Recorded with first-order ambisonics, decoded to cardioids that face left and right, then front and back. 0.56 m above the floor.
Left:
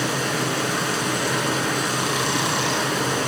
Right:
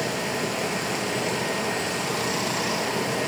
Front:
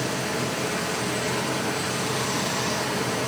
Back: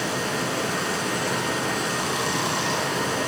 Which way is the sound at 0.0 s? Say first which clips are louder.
Left 3 dB, back 1 dB; 105° left.